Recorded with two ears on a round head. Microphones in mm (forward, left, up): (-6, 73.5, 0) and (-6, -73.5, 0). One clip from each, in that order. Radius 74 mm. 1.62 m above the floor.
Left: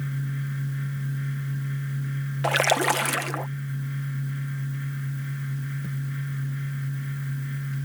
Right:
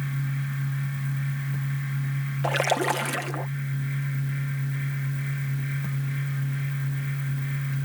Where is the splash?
25° left (ahead or behind).